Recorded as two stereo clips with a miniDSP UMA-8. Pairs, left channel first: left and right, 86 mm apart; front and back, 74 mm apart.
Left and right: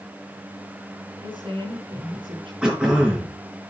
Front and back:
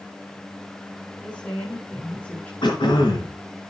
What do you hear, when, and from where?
1.2 s a woman speaking: 70° right, 7 m
2.6 s throat clearing: 10° right, 4 m